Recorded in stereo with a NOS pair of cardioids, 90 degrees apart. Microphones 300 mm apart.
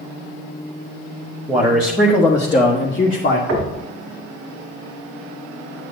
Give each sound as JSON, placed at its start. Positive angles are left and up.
{"t": 1.5, "sound": "a man speaking", "azimuth_deg": -10, "distance_m": 1.3}
{"t": 3.5, "sound": "knocking", "azimuth_deg": -60, "distance_m": 2.0}